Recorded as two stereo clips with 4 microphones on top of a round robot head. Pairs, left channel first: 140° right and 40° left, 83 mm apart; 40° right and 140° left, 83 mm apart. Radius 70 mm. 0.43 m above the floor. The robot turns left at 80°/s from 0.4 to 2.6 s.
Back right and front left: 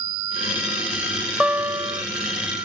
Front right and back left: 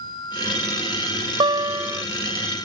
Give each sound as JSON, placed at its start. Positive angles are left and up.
{"t": 1.4, "sound": "a guitar", "azimuth_deg": 120}